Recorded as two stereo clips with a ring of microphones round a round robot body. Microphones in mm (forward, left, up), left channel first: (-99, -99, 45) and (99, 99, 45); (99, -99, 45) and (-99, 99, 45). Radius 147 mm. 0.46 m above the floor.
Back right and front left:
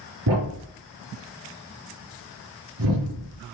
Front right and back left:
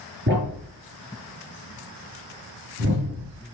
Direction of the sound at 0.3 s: 85° left.